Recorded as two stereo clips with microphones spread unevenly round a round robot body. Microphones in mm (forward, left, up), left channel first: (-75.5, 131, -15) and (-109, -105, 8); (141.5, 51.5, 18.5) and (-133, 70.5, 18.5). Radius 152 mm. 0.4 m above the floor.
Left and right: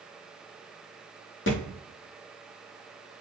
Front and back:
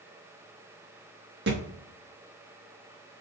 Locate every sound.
1.5 s a thud: 125° left, 3.5 m